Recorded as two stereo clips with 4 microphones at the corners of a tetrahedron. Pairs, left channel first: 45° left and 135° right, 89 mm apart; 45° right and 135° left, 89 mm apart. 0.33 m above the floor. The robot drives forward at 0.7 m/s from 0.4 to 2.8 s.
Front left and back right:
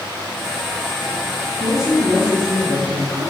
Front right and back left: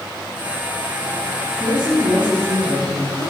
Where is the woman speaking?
145° right, 6 m; by 3.3 s 150° right, 6.5 m.